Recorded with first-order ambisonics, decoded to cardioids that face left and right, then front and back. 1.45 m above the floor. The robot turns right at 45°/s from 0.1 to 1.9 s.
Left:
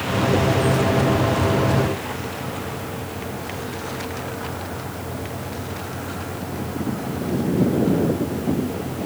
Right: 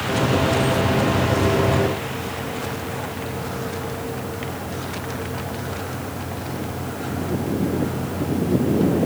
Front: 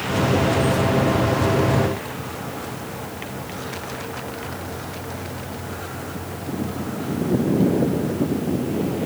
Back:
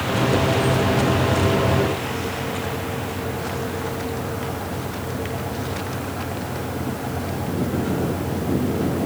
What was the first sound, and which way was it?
Only background noise.